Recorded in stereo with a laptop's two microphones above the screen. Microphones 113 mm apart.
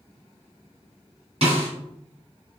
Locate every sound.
1.4 s a snare drum: 70° right (ahead or behind), 1.9 m